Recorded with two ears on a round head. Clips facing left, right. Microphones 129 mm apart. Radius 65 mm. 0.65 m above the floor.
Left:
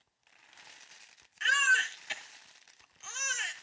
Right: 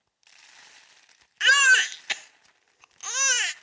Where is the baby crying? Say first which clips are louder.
Right 8 dB; 70° right (ahead or behind), 0.5 m.